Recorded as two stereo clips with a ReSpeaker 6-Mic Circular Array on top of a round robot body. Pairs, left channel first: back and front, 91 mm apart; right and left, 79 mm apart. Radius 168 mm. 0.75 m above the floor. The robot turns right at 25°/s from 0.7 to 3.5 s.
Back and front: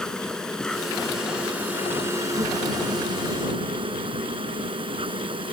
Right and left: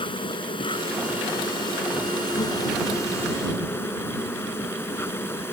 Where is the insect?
95° right; by 5.5 s 25° right.